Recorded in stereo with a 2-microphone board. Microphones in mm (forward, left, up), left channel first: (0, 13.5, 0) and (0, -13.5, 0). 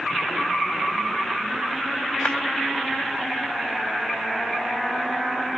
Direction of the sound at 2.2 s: 55° left (ahead or behind).